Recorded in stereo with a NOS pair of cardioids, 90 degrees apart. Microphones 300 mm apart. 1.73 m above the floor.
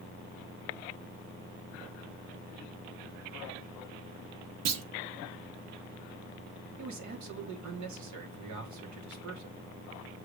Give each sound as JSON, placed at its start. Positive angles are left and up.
{"t": 4.7, "sound": "a clunk", "azimuth_deg": -60, "distance_m": 0.9}
{"t": 6.8, "sound": "a man speaking", "azimuth_deg": -70, "distance_m": 2.0}